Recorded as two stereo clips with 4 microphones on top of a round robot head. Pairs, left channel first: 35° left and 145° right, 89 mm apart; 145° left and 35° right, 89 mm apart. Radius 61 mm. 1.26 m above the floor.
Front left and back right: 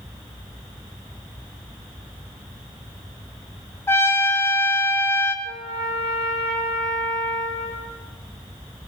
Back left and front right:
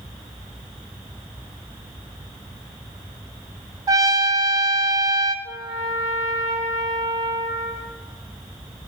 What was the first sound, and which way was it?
A trumpet, 15° right.